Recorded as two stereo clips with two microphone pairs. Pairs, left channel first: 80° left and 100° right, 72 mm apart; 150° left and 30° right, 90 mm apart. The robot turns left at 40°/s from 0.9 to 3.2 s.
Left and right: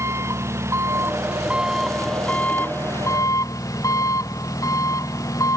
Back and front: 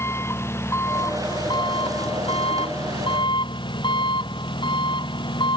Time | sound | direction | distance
0.0 | an engine running | 150° right | ?